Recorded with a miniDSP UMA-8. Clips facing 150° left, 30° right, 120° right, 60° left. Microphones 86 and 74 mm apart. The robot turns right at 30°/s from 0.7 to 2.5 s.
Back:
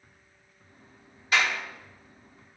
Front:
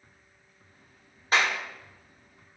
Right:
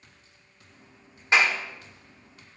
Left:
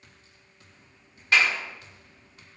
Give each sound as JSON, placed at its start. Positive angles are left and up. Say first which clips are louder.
{"t": 1.3, "sound": "a clap", "louder": "front 1 dB, right 1 dB", "azimuth_deg": -60, "distance_m": 1.3}